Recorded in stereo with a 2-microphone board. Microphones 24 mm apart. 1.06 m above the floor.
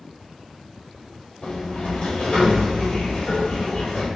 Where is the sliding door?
60° left (ahead or behind), 1.9 m.